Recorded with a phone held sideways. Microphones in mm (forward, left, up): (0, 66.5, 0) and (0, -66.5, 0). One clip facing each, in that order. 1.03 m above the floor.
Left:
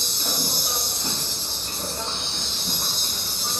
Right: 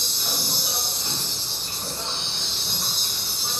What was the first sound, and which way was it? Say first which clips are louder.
An insect: left 3 dB; 45° left (ahead or behind).